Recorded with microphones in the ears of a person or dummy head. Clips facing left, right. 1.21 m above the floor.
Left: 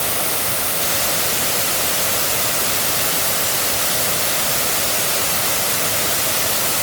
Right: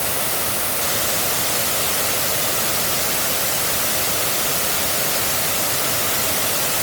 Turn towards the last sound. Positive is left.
No sound to turn to.